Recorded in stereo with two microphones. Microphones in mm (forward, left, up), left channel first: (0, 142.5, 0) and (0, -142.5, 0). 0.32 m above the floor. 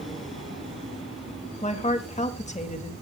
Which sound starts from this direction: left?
A woman speaking, at 1.6 s.